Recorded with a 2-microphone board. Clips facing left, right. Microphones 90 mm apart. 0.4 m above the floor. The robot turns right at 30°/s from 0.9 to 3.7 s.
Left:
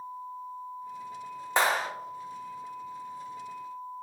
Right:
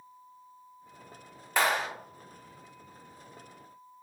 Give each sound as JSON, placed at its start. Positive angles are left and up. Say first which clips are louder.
{"t": 1.6, "sound": "a clap", "louder": "left 1 dB", "side_deg": 30, "distance_m": 0.7}